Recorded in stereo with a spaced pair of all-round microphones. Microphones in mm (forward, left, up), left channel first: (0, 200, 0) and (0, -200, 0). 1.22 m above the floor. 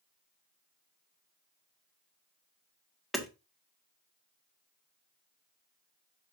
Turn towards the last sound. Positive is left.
turn(degrees=0)  # may be behind; listen again after turning